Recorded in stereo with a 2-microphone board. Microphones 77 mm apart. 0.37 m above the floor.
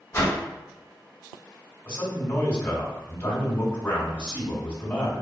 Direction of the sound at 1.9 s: 25° left (ahead or behind).